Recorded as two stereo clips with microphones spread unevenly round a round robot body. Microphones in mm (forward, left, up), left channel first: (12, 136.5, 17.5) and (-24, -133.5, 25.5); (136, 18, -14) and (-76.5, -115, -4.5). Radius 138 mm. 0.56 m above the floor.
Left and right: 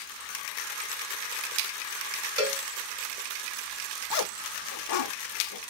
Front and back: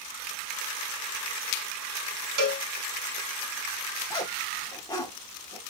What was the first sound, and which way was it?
A cowbell, 175° right.